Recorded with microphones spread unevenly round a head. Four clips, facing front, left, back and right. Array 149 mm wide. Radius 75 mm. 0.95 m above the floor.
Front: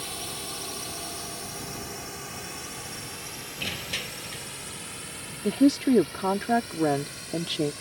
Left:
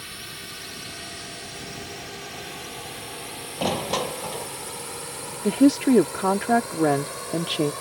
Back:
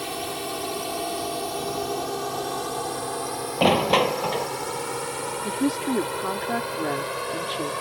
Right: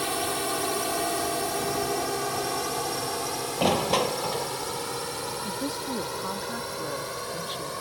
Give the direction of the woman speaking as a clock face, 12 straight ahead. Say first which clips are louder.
Left 19 dB, front 5 dB; 10 o'clock.